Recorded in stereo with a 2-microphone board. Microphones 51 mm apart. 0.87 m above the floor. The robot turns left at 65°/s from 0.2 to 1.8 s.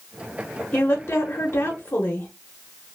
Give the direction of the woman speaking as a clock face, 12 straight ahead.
7 o'clock.